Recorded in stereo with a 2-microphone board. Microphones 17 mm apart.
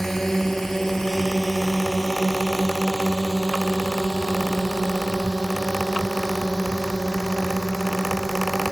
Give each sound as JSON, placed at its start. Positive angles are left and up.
{"t": 0.0, "sound": "a drone", "side_deg": 20}